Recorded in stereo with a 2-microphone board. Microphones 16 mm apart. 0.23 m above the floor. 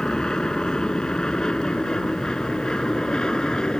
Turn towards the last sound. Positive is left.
turn(degrees=60)  # may be behind; listen again after turning